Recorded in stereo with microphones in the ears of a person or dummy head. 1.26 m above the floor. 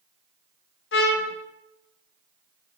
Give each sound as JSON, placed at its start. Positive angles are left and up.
{"t": 0.9, "sound": "a trumpet", "side_deg": 75, "distance_m": 1.1}